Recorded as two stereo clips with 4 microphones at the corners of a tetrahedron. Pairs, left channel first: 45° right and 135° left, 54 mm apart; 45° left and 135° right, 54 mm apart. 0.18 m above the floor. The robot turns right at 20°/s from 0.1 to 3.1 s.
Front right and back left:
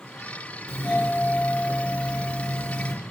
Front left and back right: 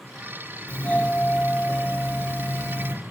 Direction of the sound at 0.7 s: 10° right.